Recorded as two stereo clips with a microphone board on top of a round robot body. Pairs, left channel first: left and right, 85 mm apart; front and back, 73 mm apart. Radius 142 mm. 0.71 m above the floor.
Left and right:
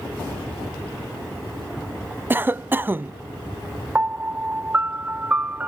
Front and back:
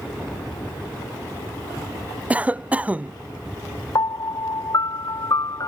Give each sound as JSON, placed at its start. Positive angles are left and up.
{"t": 2.3, "sound": "a cough", "azimuth_deg": -130}
{"t": 4.0, "sound": "a piano", "azimuth_deg": -20}